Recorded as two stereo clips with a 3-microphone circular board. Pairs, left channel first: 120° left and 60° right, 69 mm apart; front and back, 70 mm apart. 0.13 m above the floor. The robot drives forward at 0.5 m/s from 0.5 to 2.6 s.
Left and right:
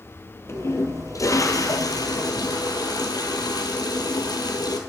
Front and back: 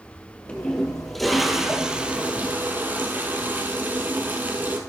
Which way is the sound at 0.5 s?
70° left.